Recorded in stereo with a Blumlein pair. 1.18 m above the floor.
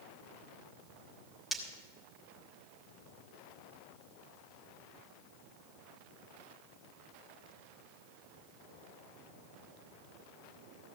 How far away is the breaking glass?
About 3.5 m.